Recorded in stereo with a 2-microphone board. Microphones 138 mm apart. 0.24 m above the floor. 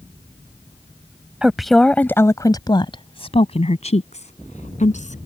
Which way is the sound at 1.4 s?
5° right (ahead or behind).